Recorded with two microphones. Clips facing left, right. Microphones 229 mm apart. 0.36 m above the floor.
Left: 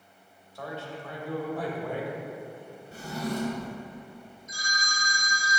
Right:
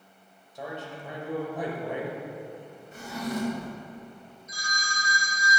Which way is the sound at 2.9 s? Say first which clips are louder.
Even; 40° left (ahead or behind).